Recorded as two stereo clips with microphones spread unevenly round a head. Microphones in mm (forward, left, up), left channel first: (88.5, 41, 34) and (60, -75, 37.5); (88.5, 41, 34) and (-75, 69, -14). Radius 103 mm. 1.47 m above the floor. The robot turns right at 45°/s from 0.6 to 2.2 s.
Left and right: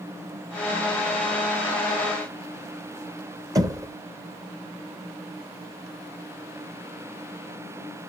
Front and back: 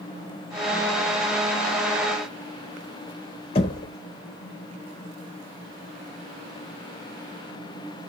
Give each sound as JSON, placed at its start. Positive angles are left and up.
{"t": 3.5, "sound": "knocking", "azimuth_deg": -50, "distance_m": 0.9}